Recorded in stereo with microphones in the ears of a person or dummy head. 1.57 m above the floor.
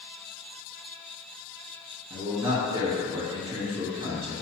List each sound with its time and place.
2.1 s a man speaking: 15° right (ahead or behind), 3 m